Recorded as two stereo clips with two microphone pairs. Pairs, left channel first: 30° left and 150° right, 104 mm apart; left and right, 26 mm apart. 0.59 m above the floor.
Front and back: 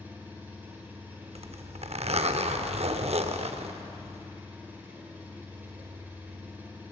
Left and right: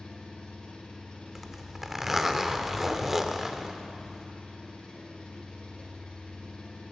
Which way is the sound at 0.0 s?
135° left.